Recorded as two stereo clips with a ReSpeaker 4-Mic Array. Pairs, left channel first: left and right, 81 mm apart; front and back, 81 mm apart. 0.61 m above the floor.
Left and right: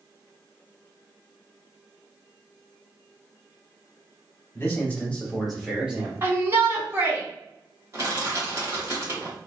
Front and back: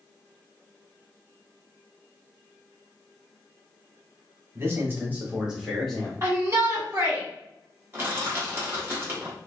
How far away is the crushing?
About 1.2 m.